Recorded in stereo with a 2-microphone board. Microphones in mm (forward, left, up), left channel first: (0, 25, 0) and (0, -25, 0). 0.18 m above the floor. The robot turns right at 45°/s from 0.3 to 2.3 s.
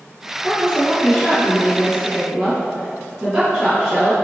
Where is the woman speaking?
115° left, 1.7 m; by 4.1 s 160° right, 1.7 m.